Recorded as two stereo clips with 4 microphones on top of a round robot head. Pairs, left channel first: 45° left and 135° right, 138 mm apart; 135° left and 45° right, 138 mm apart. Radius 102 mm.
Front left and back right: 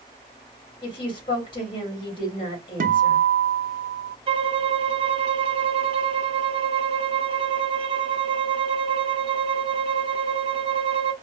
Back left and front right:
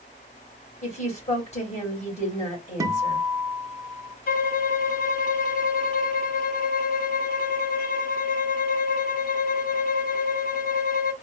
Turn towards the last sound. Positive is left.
turn(degrees=170)